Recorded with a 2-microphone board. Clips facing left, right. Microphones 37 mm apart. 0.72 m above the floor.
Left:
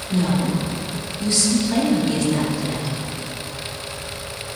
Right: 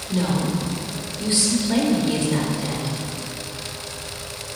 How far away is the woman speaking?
About 2.5 m.